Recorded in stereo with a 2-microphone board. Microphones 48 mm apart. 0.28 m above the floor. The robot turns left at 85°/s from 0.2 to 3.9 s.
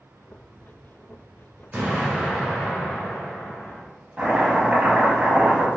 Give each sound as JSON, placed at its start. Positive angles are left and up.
{"t": 1.7, "sound": "an explosion", "azimuth_deg": -140, "distance_m": 1.3}
{"t": 4.2, "sound": "chopping", "side_deg": -30, "distance_m": 1.0}